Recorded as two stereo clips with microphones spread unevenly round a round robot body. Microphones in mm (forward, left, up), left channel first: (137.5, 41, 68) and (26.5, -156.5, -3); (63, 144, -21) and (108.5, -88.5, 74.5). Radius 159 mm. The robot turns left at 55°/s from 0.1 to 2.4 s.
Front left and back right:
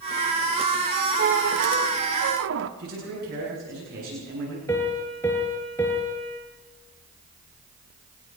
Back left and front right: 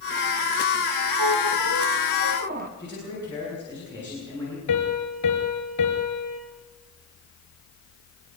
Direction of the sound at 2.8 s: 175° right.